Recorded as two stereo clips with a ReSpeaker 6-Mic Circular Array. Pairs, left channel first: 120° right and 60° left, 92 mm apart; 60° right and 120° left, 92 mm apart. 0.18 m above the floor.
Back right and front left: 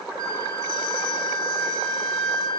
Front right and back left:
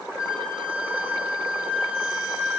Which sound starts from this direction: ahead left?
A flute, at 0.2 s.